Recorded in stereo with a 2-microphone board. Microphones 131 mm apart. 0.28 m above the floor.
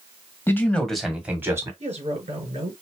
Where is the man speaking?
20° left (ahead or behind), 1.6 m; by 1.7 s 25° right (ahead or behind), 1.9 m.